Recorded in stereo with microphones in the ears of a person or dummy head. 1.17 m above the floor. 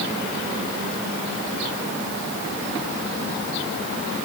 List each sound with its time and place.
Only background noise.